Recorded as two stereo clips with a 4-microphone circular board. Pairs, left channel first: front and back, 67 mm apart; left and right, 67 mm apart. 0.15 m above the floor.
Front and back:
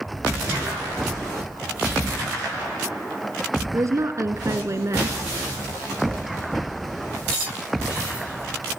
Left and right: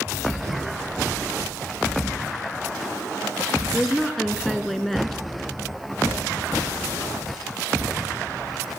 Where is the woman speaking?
175° left, 1.5 m.